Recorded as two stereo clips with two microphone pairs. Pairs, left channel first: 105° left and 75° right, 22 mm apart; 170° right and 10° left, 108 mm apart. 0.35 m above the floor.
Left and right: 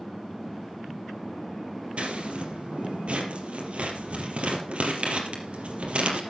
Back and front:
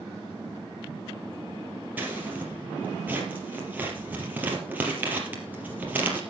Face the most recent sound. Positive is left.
turn(degrees=-60)